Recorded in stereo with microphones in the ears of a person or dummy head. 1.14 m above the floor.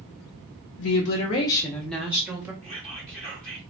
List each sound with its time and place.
0.8 s a woman speaking: 75° left (ahead or behind), 0.5 m; by 2.5 s 15° right (ahead or behind), 1.0 m
2.6 s whispering: 10° right (ahead or behind), 0.8 m